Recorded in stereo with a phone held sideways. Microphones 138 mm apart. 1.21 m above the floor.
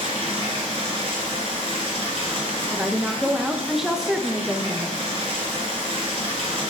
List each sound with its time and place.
0.0 s running water: 45° right (ahead or behind), 2.5 m
2.7 s a woman speaking: 5° right (ahead or behind), 0.9 m